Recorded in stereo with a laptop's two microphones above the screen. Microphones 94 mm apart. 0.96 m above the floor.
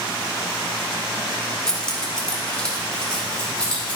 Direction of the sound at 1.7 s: 10° left (ahead or behind).